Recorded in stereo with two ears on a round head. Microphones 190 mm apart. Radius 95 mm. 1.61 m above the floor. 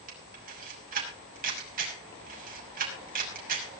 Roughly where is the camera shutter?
Right.